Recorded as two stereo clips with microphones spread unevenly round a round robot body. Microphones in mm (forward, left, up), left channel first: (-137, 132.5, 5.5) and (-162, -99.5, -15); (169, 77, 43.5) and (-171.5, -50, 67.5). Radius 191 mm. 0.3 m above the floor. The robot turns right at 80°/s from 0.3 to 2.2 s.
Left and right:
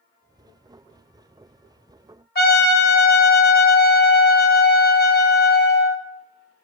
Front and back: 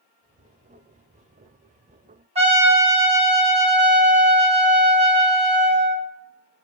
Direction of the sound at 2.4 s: 130° left.